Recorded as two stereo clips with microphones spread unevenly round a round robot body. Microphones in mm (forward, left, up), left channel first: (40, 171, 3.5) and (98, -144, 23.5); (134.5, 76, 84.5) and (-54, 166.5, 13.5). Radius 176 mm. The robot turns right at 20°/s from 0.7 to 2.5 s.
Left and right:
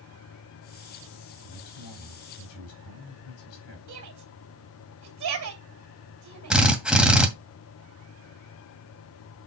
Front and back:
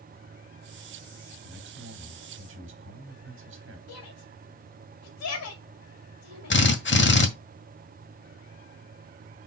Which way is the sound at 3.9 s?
45° right.